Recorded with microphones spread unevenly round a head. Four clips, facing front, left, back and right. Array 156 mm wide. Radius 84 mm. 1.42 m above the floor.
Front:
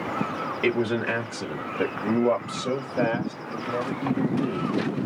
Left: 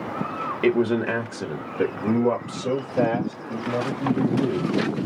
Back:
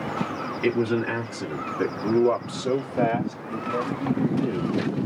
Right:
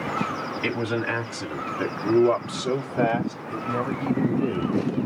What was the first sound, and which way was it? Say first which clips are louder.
A man speaking: left 7 dB, back 1 dB; 70° left.